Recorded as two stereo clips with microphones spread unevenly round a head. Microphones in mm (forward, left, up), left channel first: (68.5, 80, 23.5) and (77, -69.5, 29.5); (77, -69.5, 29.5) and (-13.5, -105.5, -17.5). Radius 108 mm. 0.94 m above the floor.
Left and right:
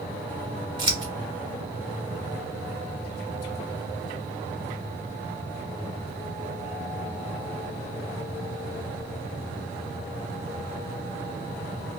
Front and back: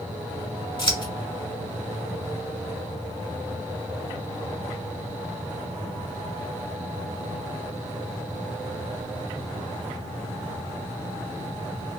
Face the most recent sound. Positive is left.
turn(degrees=-30)